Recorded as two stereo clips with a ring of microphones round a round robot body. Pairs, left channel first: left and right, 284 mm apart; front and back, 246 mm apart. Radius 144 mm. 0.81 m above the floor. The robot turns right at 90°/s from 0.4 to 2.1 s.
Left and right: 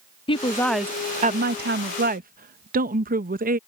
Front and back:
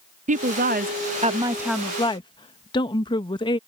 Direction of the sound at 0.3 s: 150° left.